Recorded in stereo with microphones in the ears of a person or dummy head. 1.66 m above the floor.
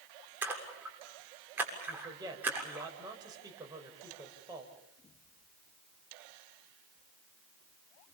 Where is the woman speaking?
20° right (ahead or behind), 6.5 m.